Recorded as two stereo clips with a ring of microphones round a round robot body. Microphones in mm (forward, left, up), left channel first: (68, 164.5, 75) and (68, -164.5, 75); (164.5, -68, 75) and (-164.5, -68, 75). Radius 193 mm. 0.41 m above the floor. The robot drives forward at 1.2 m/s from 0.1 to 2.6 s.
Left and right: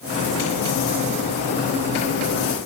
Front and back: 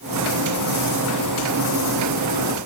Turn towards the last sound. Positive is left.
No sound to turn to.